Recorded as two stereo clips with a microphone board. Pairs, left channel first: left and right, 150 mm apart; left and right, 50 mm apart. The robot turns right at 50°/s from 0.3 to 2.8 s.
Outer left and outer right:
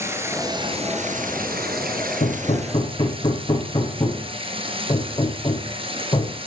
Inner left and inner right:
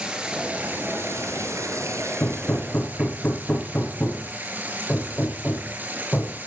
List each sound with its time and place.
0.0 s running water: 160° right, 5 m; by 6.5 s 35° right, 5 m
2.2 s hammering: 65° left (ahead or behind), 5.5 m; by 6.4 s 35° left (ahead or behind), 5.5 m